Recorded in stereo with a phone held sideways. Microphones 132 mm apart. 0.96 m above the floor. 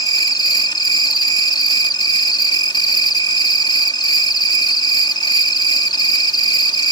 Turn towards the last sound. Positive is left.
turn(degrees=35)  # may be behind; listen again after turning